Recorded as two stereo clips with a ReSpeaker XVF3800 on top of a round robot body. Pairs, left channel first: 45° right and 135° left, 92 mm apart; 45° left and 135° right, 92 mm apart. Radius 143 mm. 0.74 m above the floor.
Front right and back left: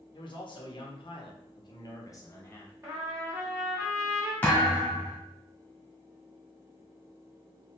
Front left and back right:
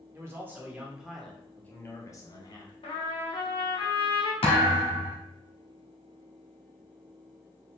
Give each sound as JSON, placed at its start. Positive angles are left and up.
{"t": 0.1, "sound": "a man speaking", "azimuth_deg": -75, "distance_m": 1.6}
{"t": 2.8, "sound": "a trumpet", "azimuth_deg": 75, "distance_m": 1.9}
{"t": 4.4, "sound": "a thud", "azimuth_deg": 30, "distance_m": 0.9}